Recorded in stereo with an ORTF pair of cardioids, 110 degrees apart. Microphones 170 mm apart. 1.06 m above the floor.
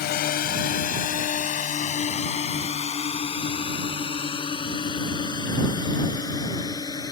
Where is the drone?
65° left; by 7.1 s 20° left.